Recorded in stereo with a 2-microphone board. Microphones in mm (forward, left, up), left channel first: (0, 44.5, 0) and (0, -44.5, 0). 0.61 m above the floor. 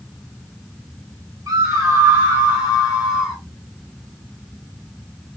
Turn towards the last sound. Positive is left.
turn(degrees=-10)  # may be behind; listen again after turning